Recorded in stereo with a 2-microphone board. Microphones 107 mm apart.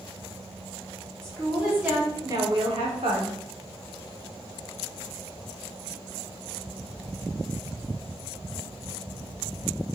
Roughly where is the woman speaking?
Centre.